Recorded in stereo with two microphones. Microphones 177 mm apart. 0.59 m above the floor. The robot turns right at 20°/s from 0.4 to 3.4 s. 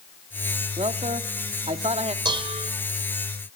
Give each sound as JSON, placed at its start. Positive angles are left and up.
{"t": 0.8, "sound": "a man speaking", "side_deg": -35, "distance_m": 1.0}
{"t": 2.2, "sound": "dishes clattering", "side_deg": -25, "distance_m": 1.7}